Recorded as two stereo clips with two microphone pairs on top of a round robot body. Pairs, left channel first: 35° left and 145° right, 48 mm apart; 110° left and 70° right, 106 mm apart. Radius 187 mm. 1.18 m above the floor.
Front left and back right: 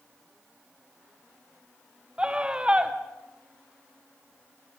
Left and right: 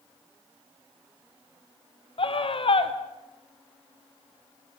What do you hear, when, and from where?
2.2 s a scream: 150° left, 2.5 m